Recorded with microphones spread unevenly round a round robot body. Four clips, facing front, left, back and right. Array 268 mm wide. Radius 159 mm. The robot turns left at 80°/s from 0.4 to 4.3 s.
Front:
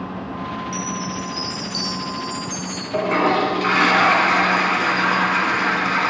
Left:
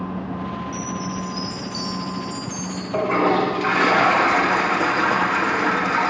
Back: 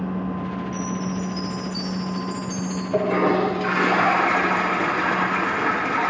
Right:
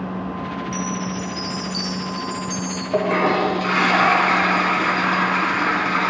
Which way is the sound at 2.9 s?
160° right.